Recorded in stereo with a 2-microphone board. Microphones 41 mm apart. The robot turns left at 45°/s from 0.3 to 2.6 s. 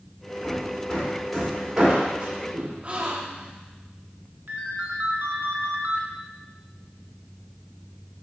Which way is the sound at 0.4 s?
40° left (ahead or behind).